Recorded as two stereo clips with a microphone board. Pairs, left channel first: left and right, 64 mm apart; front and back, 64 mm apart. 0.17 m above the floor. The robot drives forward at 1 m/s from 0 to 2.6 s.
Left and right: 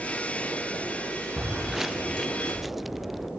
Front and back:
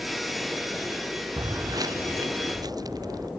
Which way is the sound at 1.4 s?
165° right.